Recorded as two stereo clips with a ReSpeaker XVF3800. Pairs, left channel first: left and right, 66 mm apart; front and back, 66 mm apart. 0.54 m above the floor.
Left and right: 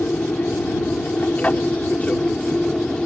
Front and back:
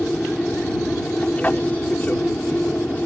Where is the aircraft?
55° left; by 3.1 s 30° left.